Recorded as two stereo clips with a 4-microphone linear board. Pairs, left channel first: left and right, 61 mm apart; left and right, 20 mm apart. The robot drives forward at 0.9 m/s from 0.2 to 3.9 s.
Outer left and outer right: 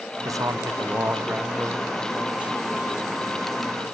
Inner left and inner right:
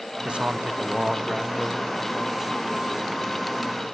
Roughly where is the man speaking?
Right.